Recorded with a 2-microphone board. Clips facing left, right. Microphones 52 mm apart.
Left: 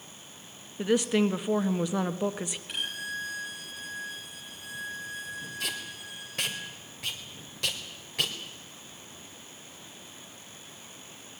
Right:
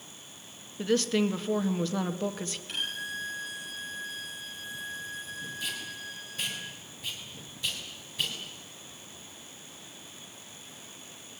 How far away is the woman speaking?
About 1.1 m.